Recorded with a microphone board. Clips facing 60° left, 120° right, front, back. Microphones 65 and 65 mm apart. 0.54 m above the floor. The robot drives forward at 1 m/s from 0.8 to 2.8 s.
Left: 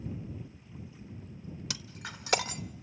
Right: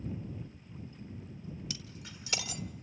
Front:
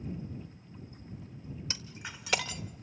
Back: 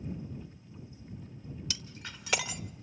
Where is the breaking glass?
55° left, 1.1 m; by 2.6 s 110° left, 1.0 m.